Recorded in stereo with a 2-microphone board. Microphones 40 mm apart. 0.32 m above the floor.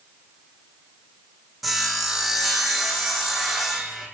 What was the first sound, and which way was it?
Sawing, centre (ahead or behind).